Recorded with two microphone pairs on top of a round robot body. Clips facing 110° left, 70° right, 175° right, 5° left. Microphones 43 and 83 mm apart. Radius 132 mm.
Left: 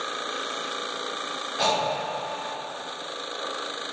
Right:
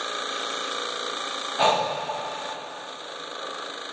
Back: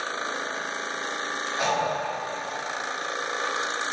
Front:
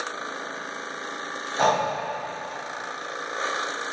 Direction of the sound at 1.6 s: 20° right.